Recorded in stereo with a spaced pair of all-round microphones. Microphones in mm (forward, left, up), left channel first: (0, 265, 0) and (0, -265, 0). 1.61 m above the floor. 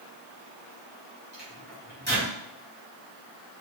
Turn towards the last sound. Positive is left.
turn(degrees=-20)  # may be behind; listen again after turning